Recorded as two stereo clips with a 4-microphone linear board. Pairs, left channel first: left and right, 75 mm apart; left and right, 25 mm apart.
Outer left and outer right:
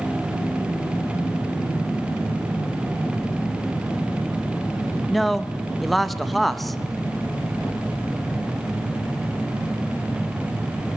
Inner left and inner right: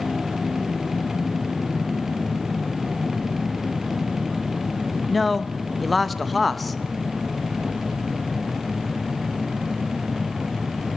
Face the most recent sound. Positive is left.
turn(degrees=5)  # may be behind; listen again after turning